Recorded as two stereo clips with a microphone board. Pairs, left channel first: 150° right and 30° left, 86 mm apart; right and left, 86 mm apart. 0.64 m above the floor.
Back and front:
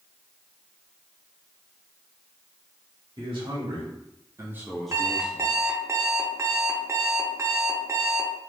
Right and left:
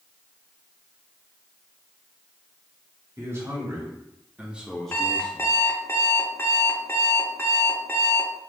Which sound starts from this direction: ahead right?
An alarm clock, at 4.9 s.